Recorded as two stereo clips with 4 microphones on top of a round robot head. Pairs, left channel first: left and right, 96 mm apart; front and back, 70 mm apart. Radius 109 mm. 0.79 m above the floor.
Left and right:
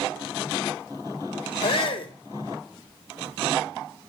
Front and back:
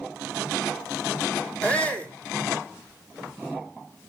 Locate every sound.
1.6 s a shout: 70° left, 2 m